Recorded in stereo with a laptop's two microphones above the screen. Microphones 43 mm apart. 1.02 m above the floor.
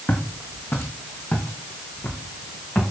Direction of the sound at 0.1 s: 70° left (ahead or behind).